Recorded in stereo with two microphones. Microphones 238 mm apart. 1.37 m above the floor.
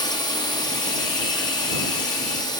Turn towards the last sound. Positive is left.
turn(degrees=15)  # may be behind; listen again after turning